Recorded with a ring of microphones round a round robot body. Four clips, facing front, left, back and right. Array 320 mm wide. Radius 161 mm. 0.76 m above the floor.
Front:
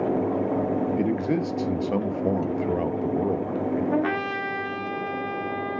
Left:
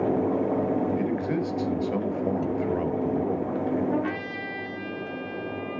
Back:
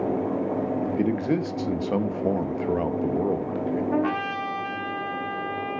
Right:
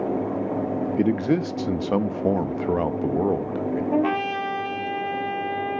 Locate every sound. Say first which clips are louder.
1.0 s a man speaking: right 5 dB, even; 90° right, 1.0 m
3.9 s a trumpet: right 6 dB, even; 60° right, 1.5 m